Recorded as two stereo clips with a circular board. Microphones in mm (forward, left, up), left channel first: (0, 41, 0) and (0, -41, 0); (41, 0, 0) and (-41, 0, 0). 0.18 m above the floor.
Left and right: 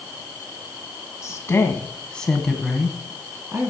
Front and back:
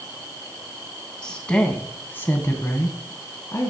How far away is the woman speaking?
About 1.8 m.